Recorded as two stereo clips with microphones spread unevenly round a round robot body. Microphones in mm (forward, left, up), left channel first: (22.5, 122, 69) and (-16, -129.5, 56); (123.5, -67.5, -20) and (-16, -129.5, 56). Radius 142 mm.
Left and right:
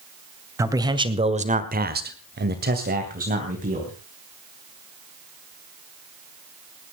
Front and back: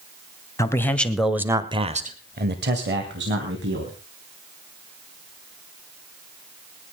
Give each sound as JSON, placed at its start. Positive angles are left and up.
{"t": 0.6, "sound": "a man speaking", "azimuth_deg": -25, "distance_m": 2.5}